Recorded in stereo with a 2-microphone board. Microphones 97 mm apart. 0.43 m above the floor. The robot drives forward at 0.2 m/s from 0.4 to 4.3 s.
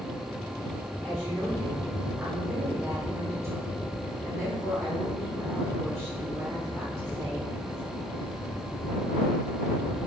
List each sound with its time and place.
1.0 s a woman speaking: 25° right (ahead or behind), 1.1 m